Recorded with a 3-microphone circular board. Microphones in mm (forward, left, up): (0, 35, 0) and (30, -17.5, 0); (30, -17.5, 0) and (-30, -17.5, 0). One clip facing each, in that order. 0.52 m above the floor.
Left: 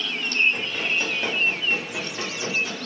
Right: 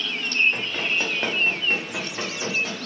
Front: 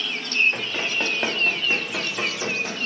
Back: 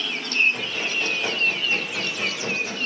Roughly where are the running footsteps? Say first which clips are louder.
Even, front 1 dB; ahead.